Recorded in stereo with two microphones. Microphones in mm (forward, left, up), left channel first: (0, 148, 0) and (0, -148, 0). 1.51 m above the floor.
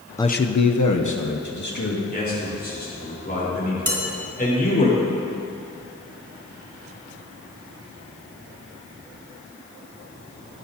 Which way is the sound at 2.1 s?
30° left (ahead or behind).